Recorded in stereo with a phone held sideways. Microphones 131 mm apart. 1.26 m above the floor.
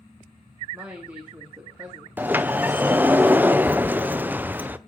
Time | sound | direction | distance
0.7 | a woman speaking | 15° right (ahead or behind) | 1.8 m
2.2 | a sliding door | 15° right (ahead or behind) | 0.5 m